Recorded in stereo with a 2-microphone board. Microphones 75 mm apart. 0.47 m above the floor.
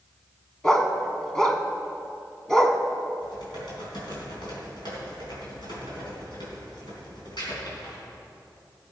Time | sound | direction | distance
0.6 | a dog barking | 10° left (ahead or behind) | 0.9 m
3.2 | typing on a keyboard | 80° left | 4 m